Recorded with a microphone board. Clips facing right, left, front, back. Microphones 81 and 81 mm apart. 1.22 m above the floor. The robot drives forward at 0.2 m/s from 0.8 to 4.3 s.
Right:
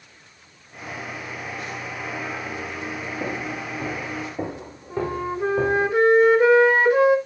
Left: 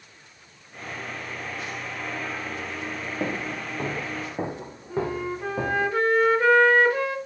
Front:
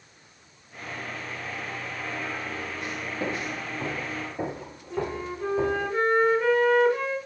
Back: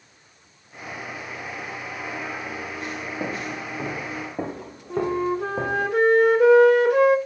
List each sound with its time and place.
3.2 s footsteps: 120° left, 3.5 m; by 5.9 s 170° left, 4.5 m
4.9 s a flute: 160° right, 1.1 m